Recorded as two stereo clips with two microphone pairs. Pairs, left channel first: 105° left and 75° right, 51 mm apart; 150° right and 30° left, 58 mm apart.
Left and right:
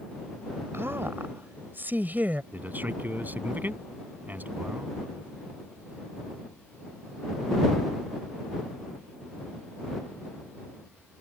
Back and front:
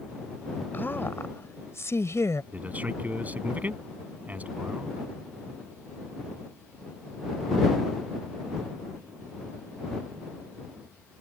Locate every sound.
0.7 s a woman speaking: 100° right; by 2.4 s 130° right
2.5 s a man speaking: 30° right